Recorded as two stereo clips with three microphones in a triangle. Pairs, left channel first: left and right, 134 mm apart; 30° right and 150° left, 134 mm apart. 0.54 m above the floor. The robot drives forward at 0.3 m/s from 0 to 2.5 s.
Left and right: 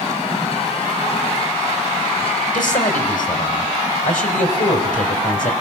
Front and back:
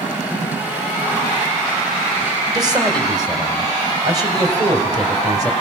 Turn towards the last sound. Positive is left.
turn(degrees=90)